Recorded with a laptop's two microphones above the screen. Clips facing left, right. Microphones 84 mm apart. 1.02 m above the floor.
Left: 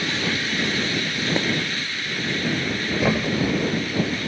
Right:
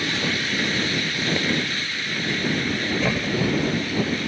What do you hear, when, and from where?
1.4 s breaking glass: 20° left (ahead or behind)
3.0 s a thud: 15° left (ahead or behind)